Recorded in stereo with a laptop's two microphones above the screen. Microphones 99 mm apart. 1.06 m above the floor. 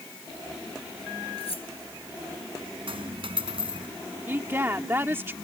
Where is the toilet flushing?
No toilet flushing in this recording.